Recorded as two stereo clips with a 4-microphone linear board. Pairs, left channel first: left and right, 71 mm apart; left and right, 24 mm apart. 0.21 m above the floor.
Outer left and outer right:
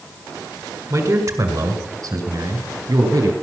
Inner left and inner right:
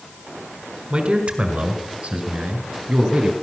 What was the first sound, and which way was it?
A man speaking, 50° right (ahead or behind).